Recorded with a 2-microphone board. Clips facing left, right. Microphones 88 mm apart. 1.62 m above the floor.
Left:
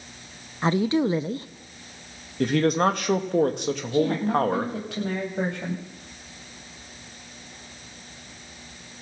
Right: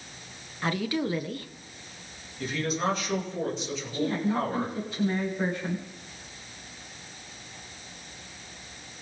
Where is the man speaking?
55° left (ahead or behind), 2.5 m.